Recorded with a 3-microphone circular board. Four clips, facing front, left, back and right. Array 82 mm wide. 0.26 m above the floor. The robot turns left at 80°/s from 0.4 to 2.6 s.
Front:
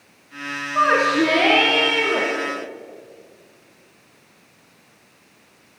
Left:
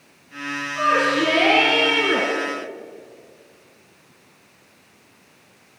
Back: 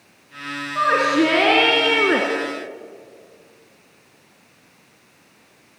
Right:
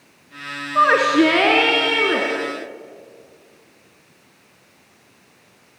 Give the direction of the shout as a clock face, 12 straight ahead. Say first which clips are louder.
Right 5 dB, even; 2 o'clock.